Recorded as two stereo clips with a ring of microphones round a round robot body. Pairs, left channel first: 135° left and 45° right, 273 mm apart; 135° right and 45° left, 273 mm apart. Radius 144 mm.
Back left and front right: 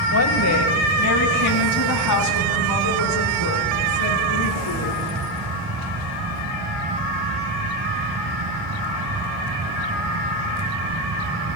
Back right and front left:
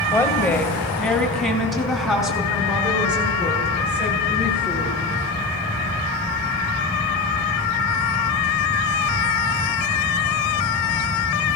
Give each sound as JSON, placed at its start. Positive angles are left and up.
{"t": 0.1, "sound": "a woman speaking", "azimuth_deg": 145, "distance_m": 2.5}